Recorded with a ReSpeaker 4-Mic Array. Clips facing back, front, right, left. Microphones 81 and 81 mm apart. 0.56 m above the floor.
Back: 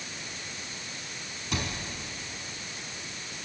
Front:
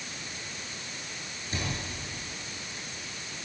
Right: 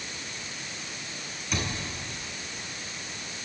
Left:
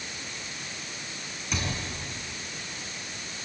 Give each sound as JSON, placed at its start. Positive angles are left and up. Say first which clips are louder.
{"t": 1.5, "sound": "a cupboard door", "louder": "back 1 dB, even", "azimuth_deg": 180, "distance_m": 4.5}